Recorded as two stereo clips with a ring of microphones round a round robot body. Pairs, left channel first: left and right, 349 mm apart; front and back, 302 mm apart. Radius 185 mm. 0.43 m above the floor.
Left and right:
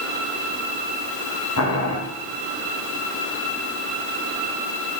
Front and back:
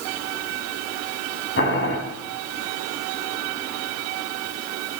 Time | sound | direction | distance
1.6 | boiling | 45° left | 3 m